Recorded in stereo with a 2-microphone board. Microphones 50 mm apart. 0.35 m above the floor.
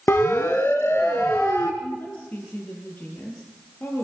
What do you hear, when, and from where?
0.1 s a siren: 55° left (ahead or behind), 2.5 m; by 1.7 s 60° left (ahead or behind), 3.5 m
1.8 s a woman speaking: 40° left (ahead or behind), 7 m